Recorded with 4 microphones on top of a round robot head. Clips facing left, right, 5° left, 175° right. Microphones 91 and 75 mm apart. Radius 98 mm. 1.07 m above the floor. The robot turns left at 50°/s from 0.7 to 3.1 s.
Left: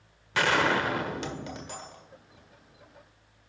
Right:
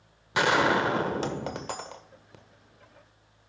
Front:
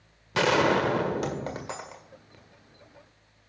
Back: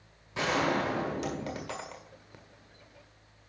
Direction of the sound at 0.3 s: 20° right.